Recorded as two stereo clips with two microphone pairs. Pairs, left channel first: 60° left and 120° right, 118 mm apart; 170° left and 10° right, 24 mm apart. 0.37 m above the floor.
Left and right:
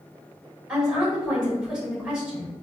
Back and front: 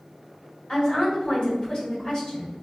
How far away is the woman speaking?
About 1.7 m.